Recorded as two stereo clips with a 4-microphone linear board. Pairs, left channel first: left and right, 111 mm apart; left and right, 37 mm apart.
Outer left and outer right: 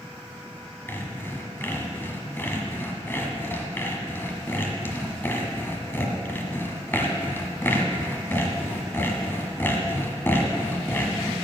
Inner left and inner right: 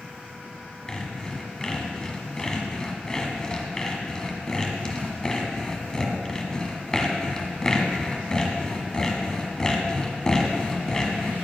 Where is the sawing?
20° left (ahead or behind), 1.5 m.